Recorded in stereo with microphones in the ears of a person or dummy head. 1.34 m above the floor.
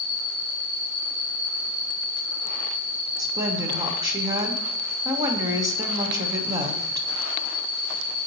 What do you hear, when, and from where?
0.0 s an insect: 5° right (ahead or behind), 3 m
3.2 s a woman speaking: 20° right (ahead or behind), 0.9 m